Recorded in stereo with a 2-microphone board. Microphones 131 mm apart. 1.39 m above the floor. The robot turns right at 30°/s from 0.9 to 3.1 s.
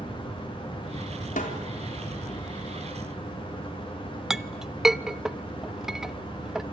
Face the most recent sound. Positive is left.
turn(degrees=-5)  # may be behind; listen again after turning